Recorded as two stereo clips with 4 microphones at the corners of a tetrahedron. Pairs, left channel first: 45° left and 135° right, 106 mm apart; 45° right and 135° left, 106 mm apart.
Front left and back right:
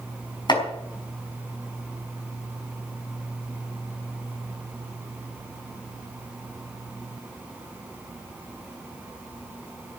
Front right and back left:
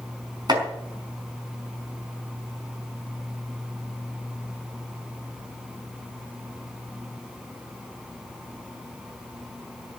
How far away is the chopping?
About 5 m.